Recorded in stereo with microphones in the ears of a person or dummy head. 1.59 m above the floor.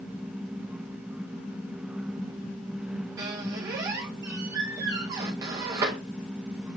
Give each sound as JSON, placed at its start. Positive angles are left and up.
{"t": 3.2, "sound": "a squeak", "side_deg": -15, "distance_m": 0.9}